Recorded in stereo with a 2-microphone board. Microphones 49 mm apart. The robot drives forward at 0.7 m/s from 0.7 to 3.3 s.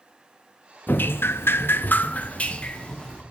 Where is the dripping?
45° left (ahead or behind), 0.6 m; by 3.2 s 20° left (ahead or behind), 1.4 m.